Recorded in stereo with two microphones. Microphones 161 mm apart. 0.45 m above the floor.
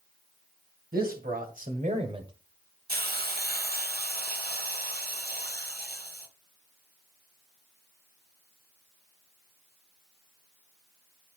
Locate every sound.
0.9 s a man speaking: 70° right (ahead or behind), 2.5 m; by 2.3 s 30° right (ahead or behind), 1.4 m
2.9 s a hiss: 75° right (ahead or behind), 0.8 m